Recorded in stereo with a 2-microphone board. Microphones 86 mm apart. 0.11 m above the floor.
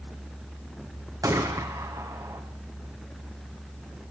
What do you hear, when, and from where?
1.2 s a gunshot: 40° right (ahead or behind), 3.5 m